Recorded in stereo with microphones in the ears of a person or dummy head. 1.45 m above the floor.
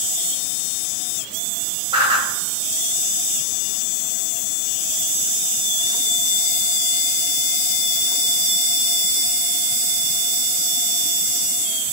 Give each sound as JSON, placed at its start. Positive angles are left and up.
{"t": 1.9, "sound": "a whoosh", "side_deg": -25, "distance_m": 1.4}